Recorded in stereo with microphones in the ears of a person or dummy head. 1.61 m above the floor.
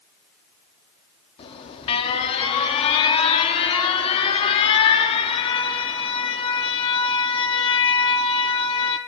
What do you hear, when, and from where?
1.4 s an alarm: 35° left (ahead or behind), 0.7 m